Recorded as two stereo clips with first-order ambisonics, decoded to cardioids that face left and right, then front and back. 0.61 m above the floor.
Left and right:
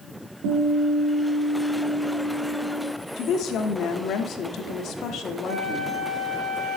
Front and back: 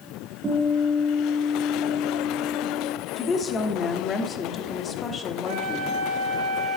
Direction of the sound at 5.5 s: 160° right.